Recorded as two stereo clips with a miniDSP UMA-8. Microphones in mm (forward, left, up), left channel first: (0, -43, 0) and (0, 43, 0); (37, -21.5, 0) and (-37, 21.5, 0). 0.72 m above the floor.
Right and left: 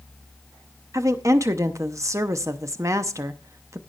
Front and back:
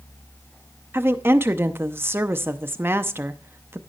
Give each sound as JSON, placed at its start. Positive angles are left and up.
{"t": 0.9, "sound": "a woman speaking", "azimuth_deg": 105, "distance_m": 0.6}